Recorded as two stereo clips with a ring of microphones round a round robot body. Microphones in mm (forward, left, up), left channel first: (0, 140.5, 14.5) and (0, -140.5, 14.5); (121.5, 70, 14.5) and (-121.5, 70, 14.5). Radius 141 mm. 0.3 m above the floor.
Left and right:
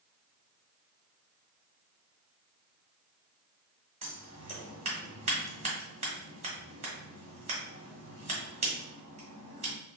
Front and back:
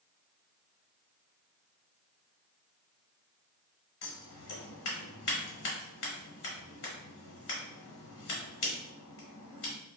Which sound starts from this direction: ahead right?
Scissors, at 4.0 s.